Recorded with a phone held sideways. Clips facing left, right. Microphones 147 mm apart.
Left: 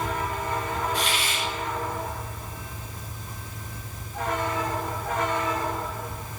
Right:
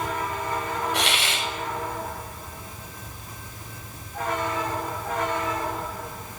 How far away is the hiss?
About 6.5 m.